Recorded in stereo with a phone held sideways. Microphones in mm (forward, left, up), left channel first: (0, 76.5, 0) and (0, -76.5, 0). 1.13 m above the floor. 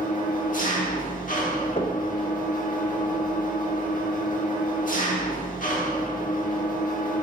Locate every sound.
0.0 s an engine running: 60° left (ahead or behind), 1.1 m
1.8 s knocking: 40° left (ahead or behind), 0.7 m